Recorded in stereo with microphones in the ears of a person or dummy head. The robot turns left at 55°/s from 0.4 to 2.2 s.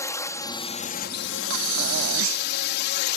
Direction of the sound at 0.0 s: 160° left.